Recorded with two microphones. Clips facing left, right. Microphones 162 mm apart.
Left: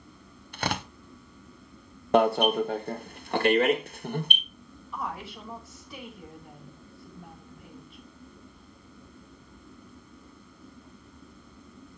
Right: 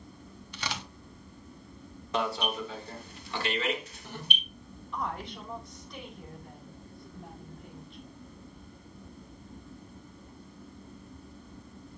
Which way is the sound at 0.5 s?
55° left (ahead or behind).